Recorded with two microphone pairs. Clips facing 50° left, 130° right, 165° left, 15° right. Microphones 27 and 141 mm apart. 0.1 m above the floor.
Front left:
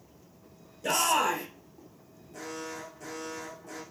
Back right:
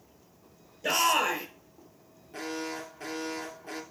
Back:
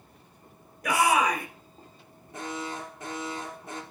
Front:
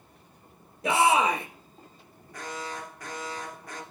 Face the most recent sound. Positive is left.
turn(degrees=-140)